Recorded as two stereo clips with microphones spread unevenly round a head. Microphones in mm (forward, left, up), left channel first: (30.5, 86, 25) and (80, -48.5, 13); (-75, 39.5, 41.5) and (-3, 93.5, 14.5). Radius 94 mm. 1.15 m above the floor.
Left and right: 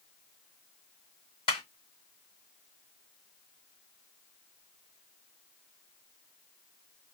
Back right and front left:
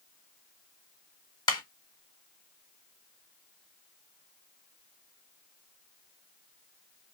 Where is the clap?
Straight behind, 1.0 m.